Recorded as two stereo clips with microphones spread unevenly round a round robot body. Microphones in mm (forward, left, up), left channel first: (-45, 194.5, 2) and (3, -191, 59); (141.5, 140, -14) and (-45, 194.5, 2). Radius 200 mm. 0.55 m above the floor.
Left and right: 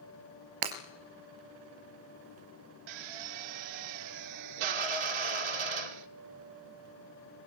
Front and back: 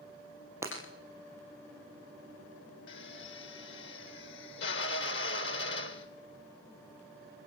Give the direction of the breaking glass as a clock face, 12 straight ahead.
4 o'clock.